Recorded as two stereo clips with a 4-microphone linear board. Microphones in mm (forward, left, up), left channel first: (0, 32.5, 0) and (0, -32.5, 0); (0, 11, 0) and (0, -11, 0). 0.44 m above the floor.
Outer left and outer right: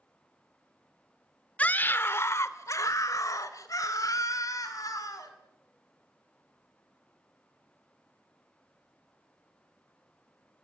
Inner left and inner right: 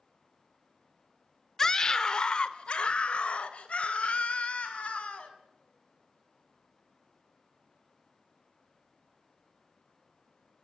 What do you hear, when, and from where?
1.6 s a scream: 20° left (ahead or behind), 1.0 m; by 5.3 s 65° left (ahead or behind), 3 m